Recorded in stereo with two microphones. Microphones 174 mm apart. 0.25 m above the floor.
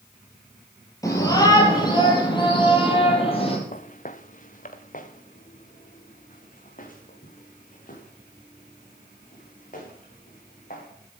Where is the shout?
20° left (ahead or behind), 5 m; by 3.6 s 35° left (ahead or behind), 5.5 m.